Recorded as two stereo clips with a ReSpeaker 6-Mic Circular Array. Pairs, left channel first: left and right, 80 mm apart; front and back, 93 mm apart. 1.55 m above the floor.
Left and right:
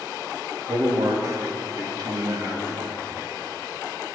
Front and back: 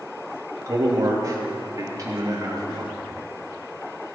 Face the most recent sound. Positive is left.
turn(degrees=-130)